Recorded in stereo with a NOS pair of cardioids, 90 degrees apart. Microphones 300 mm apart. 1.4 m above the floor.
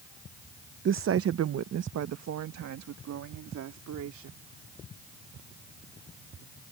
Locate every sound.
0.8 s a woman speaking: 40° right; by 4.4 s 65° right